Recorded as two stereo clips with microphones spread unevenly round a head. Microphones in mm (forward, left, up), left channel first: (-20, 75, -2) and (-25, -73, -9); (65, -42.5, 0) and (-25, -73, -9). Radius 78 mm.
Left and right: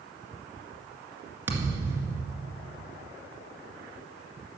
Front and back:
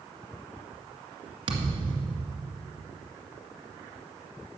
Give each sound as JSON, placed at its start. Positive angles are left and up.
{"t": 1.5, "sound": "a thud", "azimuth_deg": -165, "distance_m": 2.0}